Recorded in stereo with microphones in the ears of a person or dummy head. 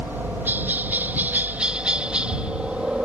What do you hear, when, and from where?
0.0 s a helicopter: 15° right (ahead or behind); by 3.1 s 5° right (ahead or behind)